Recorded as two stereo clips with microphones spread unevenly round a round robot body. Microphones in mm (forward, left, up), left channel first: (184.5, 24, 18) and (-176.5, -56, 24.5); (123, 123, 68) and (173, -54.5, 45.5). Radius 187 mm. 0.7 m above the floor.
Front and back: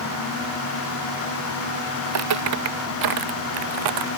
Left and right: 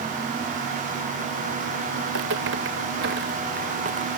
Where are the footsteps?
115° right; by 4.1 s 150° right.